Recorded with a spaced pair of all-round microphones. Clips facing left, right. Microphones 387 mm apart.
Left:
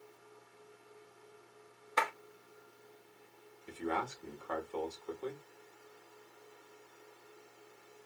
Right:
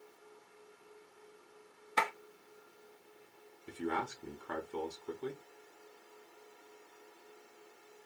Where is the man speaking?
25° right (ahead or behind), 1.2 m.